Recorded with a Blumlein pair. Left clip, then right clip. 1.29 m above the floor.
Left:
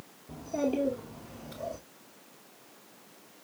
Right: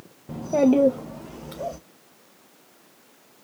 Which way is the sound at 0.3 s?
60° right.